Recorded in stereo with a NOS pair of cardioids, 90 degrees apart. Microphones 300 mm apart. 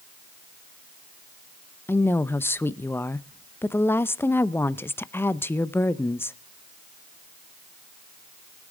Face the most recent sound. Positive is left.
turn(degrees=10)